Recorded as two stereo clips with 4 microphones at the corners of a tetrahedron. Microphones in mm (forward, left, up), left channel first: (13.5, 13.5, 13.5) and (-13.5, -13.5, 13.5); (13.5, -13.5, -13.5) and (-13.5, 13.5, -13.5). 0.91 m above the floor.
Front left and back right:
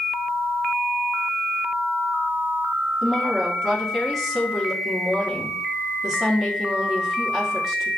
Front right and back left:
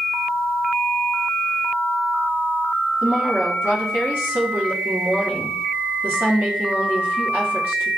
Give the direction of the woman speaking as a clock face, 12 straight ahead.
8 o'clock.